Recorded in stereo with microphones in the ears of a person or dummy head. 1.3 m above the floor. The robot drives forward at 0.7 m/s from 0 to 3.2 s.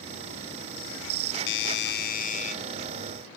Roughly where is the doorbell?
Left.